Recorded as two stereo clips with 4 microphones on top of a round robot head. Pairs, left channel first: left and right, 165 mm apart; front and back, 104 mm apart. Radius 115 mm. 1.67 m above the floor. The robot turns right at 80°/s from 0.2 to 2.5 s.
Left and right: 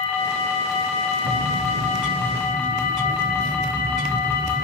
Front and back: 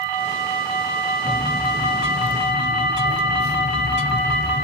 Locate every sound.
1.2 s a bird: 100° right, 0.9 m; by 4.6 s straight ahead, 0.9 m